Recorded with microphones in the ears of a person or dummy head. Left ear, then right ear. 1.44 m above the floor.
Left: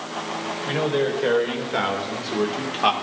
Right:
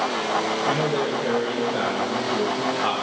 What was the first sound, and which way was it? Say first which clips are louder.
A man speaking: even; 40° left (ahead or behind).